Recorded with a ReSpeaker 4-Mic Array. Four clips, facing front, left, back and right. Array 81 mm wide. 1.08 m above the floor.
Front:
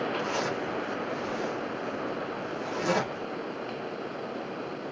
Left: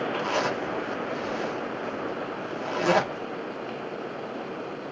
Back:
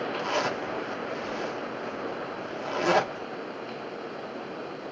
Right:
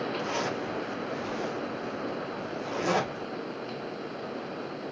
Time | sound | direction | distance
0.2 | a zipper | 125° left | 1.4 m